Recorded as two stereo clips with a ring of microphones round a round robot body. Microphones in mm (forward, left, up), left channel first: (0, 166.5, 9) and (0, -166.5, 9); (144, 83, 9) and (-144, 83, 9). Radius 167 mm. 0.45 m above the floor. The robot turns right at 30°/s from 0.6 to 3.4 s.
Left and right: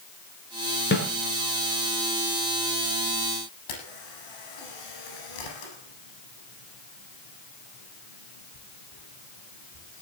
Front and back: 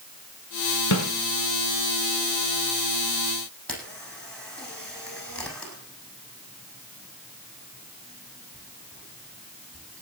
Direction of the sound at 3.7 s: 85° left.